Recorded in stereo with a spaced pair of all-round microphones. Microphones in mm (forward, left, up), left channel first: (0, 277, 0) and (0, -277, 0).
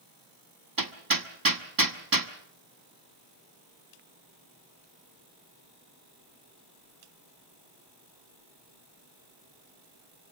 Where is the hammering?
40° right (ahead or behind), 1.5 m.